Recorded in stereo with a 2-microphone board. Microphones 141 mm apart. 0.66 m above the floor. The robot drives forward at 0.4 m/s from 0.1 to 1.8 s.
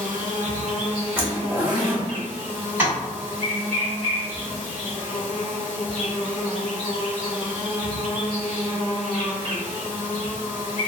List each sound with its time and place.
0.0 s an insect: 70° right (ahead or behind), 0.8 m; by 10.9 s 40° right (ahead or behind), 1.2 m
1.2 s a zipper: 15° right (ahead or behind), 0.9 m
2.8 s tapping: 10° right (ahead or behind), 1.7 m